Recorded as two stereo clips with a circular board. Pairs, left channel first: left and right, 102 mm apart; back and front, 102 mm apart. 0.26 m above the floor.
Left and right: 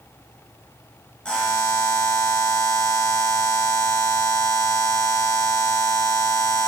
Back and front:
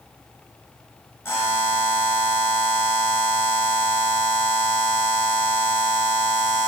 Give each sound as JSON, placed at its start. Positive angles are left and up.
{"t": 1.2, "sound": "a buzzer", "azimuth_deg": 160, "distance_m": 0.8}